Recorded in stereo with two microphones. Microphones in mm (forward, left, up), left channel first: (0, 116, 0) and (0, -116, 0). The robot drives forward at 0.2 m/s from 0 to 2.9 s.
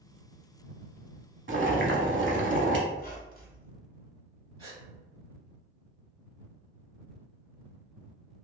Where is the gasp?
25° right (ahead or behind), 1.8 m.